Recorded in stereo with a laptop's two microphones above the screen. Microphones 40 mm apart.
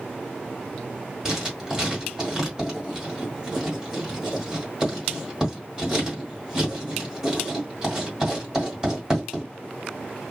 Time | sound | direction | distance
1.2 | writing | 15° right (ahead or behind) | 1.5 m